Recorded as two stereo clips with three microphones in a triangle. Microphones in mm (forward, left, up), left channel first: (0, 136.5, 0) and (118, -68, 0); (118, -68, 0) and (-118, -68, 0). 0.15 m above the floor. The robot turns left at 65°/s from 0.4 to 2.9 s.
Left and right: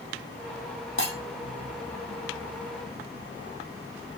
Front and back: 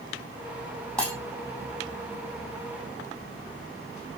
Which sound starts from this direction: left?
Breaking glass, at 1.0 s.